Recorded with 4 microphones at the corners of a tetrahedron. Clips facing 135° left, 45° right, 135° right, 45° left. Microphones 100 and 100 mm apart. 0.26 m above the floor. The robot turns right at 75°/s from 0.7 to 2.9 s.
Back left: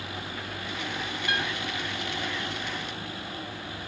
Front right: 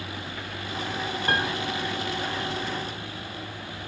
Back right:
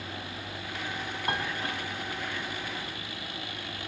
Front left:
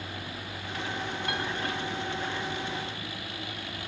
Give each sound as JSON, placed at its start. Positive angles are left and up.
{"t": 1.3, "sound": "a piano", "azimuth_deg": -80, "distance_m": 2.5}